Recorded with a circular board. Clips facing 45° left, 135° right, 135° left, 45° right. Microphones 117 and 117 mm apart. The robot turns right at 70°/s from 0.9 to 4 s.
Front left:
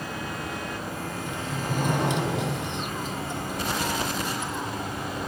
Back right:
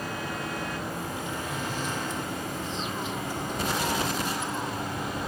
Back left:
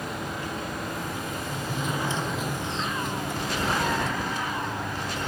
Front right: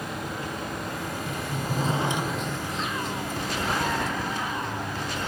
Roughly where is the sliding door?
Ahead right.